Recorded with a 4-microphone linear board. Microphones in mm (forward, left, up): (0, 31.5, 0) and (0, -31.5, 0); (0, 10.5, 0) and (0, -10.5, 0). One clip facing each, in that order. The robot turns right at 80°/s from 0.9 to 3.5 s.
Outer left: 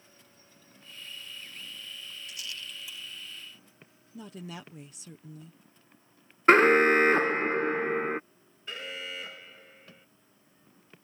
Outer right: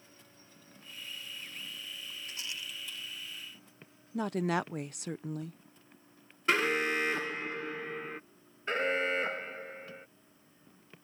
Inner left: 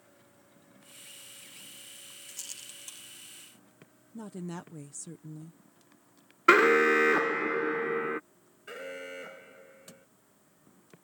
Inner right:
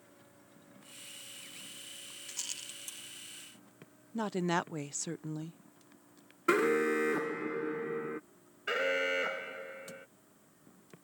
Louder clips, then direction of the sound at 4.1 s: Outer right 12 dB, inner right 8 dB; 65° right (ahead or behind).